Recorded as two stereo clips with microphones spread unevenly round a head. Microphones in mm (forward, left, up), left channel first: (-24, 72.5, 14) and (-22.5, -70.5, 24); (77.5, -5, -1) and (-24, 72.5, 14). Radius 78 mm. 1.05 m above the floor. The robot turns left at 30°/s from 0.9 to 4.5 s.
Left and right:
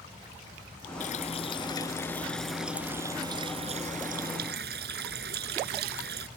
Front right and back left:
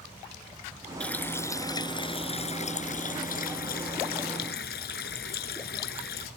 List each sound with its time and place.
1.0 s a running tap: 45° left; by 6.3 s 60° right